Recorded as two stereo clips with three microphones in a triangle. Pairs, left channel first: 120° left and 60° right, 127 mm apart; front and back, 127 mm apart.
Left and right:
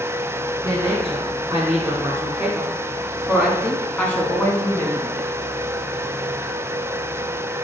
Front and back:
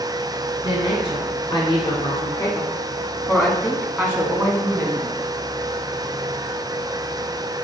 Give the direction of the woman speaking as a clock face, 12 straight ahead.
12 o'clock.